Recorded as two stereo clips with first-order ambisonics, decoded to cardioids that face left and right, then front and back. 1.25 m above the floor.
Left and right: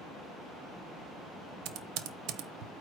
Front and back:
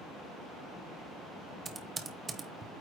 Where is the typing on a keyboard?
110° right, 0.8 m.